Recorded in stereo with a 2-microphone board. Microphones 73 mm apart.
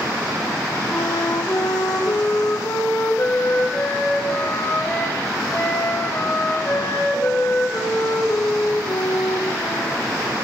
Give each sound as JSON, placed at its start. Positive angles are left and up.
{"t": 0.9, "sound": "a flute", "side_deg": 35, "distance_m": 6.0}